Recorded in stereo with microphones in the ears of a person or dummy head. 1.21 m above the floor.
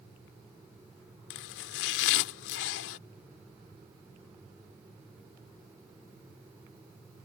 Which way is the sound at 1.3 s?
65° left (ahead or behind).